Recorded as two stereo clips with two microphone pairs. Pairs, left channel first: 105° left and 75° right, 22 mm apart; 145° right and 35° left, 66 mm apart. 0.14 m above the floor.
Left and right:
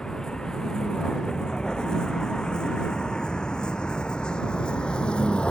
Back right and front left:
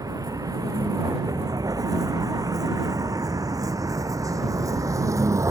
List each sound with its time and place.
0.0 s a vehicle: 45° left; by 5.5 s 65° left